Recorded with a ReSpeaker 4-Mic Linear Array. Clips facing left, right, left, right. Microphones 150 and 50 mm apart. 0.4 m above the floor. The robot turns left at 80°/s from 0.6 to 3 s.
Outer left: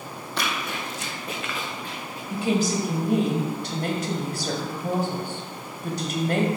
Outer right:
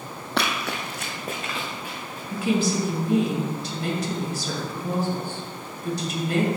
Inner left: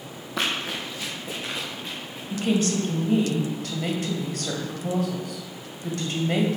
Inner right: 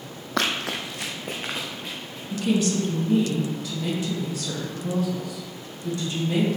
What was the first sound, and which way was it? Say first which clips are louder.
Running footsteps: outer right 3 dB, inner right 2 dB; 70° right (ahead or behind).